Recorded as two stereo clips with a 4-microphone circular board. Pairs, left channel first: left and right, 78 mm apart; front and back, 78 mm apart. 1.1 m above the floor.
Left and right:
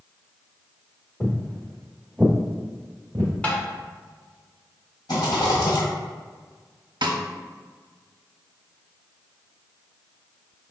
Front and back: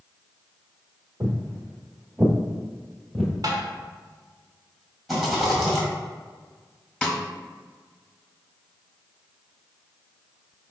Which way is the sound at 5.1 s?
90° left.